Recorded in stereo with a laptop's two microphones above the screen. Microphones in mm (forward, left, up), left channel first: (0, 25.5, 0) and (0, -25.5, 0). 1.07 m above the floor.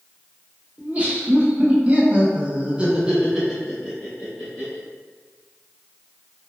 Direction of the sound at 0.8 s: 25° right (ahead or behind).